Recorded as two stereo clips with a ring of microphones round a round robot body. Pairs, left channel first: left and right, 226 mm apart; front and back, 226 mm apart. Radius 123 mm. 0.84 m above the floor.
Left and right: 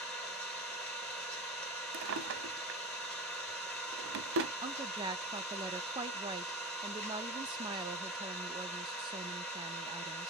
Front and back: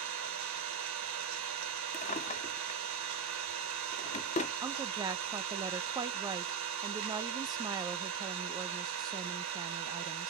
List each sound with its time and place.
0.0 s an engine running: 175° left, 1.9 m
1.9 s a drawer: 60° right, 0.8 m
4.6 s a woman speaking: 130° right, 0.6 m